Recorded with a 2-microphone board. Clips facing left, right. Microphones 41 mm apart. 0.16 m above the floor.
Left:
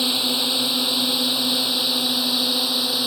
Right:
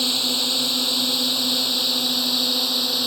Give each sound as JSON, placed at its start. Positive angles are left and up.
{"t": 0.0, "sound": "a drone", "side_deg": 10}